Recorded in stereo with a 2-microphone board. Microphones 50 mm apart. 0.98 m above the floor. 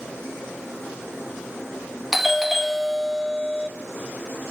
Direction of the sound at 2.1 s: 5° right (ahead or behind).